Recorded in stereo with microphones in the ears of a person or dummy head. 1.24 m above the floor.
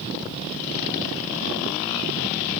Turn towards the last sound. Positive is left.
No sound to turn to.